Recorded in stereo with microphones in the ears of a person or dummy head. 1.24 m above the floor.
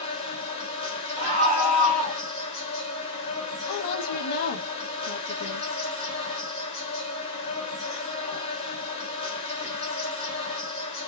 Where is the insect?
20° left (ahead or behind), 1.1 m.